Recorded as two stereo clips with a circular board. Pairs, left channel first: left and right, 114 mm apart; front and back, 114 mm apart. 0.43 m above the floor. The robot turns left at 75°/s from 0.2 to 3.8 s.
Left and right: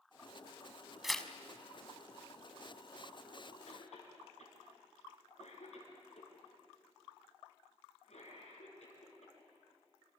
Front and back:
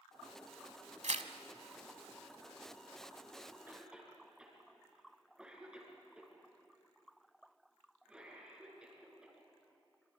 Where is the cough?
110° left, 7 m; by 9.3 s 95° left, 7 m.